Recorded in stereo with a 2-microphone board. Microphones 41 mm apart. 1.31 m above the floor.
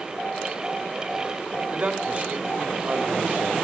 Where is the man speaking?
30° right (ahead or behind), 2.5 m.